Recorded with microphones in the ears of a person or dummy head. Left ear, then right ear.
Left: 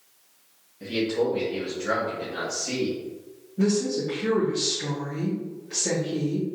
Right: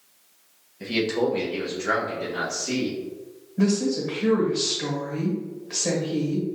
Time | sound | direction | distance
0.8 | a man speaking | 70° right (ahead or behind) | 0.7 m
3.6 | a woman speaking | 25° right (ahead or behind) | 1.1 m